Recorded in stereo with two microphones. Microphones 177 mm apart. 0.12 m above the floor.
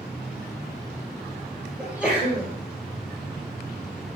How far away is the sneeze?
About 2 m.